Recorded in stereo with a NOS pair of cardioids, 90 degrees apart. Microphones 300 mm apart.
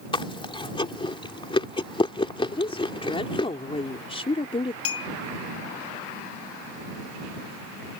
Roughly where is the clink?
Ahead left.